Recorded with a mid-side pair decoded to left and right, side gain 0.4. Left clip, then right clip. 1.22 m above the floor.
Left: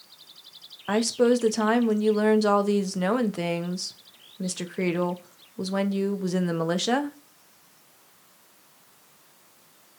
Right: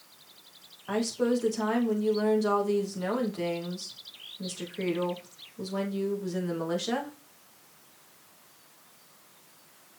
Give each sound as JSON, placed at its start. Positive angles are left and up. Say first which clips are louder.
{"t": 0.9, "sound": "a woman speaking", "louder": "left 6 dB", "azimuth_deg": 60, "distance_m": 0.8}